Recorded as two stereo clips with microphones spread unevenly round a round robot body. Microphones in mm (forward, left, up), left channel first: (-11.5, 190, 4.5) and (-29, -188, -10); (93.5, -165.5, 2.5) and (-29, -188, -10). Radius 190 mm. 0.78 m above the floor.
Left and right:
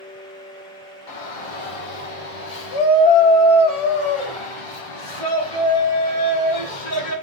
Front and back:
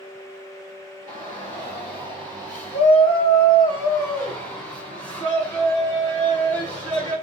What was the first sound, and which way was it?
A shout, 65° left.